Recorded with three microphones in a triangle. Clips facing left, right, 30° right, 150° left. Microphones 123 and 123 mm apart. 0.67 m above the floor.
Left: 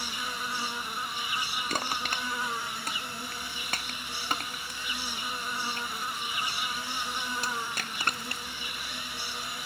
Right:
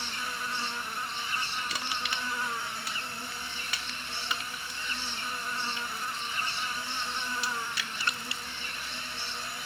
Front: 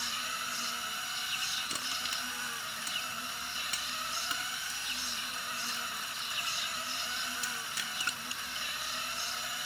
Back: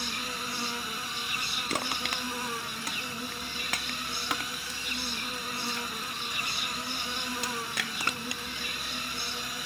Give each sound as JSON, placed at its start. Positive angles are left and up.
{"t": 0.0, "sound": "an insect", "azimuth_deg": 170}
{"t": 1.7, "sound": "crushing", "azimuth_deg": 130}